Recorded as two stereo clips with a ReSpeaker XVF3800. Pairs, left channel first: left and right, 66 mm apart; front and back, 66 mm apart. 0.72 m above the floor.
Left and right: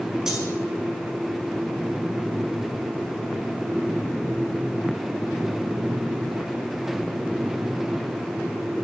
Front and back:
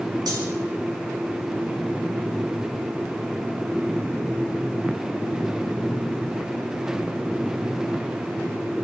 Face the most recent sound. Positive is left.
turn(degrees=-170)